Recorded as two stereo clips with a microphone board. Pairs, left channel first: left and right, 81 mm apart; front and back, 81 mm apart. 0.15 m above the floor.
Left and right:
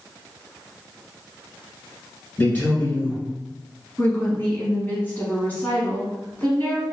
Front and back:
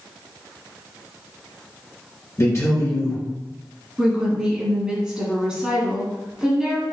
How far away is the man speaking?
About 1.8 m.